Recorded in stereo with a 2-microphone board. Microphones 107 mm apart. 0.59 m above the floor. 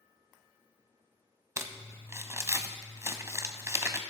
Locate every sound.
1.6 s crumpling: 25° right (ahead or behind), 0.6 m